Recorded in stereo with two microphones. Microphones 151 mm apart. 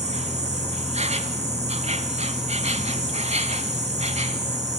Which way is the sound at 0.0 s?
45° right (ahead or behind).